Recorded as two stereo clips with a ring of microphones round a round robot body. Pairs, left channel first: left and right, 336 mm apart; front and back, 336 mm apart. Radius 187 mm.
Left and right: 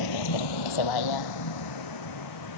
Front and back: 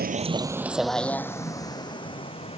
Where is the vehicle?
120° left; by 2.6 s 70° left.